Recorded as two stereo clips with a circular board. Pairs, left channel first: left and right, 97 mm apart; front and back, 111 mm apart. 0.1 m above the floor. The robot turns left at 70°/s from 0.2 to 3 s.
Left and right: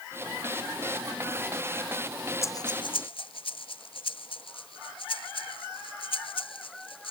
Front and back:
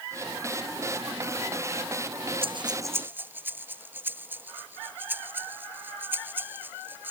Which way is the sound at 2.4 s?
150° left.